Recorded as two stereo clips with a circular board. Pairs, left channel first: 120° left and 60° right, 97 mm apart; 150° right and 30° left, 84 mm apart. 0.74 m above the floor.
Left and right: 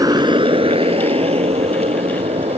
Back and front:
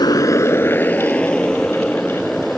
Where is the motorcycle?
115° right; by 2.6 s 60° right.